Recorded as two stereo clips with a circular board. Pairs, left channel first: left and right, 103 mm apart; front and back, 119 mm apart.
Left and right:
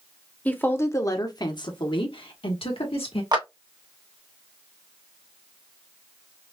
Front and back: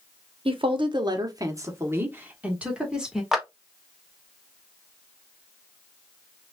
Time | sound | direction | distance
0.5 | a woman speaking | 160° left | 1.0 m
3.3 | a clap | 95° right | 1.2 m